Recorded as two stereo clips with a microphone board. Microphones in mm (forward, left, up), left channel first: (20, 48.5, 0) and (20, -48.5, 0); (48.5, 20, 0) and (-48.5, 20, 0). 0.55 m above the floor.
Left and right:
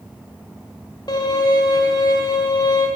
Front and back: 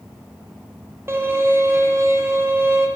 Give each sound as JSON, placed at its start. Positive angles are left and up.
{"t": 1.1, "sound": "a violin", "azimuth_deg": 120, "distance_m": 0.7}